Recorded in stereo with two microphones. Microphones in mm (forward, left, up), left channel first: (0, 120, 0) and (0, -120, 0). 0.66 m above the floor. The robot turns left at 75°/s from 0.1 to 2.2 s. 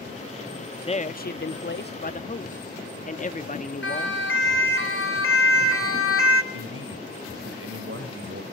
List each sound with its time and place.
0.9 s a man speaking: 145° left, 0.8 m; by 4.2 s 45° left, 0.8 m
3.8 s a siren: 55° left (ahead or behind), 4.5 m; by 6.4 s 60° left (ahead or behind), 1.7 m
6.5 s a man speaking: 60° right (ahead or behind), 3.5 m